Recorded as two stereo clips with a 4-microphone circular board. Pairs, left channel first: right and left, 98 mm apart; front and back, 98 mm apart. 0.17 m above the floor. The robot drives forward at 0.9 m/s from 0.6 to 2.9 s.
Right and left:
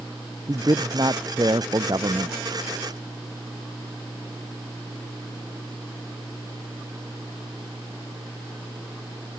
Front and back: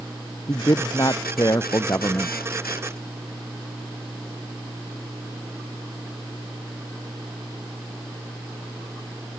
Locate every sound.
0.5 s a man speaking: 45° left; by 2.5 s 55° left